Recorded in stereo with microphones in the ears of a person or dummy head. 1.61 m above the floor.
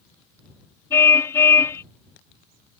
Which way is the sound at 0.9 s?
15° left (ahead or behind).